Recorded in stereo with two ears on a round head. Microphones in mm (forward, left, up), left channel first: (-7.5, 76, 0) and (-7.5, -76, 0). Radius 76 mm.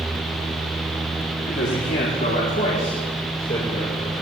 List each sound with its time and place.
1.5 s a man speaking: 70° left (ahead or behind), 3.5 m; by 4.2 s 30° left (ahead or behind), 6.5 m